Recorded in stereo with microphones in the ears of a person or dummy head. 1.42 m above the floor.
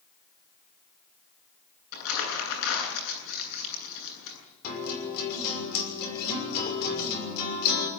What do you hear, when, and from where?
1.9 s crumpling: 75° left (ahead or behind), 9 m
4.6 s a guitar: 50° left (ahead or behind), 6 m